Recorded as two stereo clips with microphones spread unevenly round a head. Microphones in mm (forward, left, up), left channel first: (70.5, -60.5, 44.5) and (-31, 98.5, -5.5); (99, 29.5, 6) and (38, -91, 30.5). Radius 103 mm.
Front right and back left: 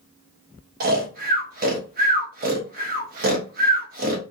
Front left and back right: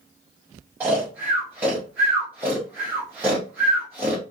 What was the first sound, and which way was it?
Snoring, 160° left.